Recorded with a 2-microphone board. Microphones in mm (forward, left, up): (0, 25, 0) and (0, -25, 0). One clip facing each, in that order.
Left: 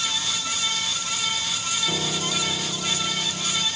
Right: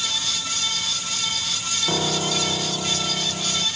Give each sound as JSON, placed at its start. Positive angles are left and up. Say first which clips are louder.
{"t": 1.9, "sound": "a piano", "louder": "right 6 dB", "side_deg": -65}